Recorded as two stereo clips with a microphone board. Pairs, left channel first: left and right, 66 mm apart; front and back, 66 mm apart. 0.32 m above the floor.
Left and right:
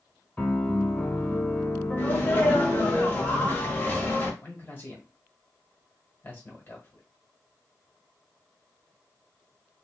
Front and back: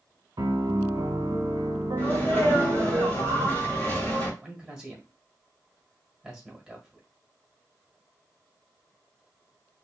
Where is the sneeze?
40° left, 1.5 m.